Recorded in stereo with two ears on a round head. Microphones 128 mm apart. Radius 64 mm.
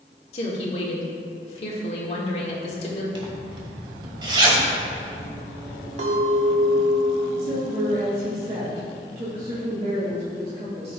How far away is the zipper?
About 1.6 m.